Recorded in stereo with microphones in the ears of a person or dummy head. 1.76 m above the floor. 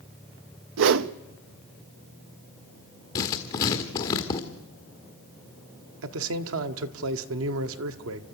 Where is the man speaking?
75° right (ahead or behind), 1.3 m.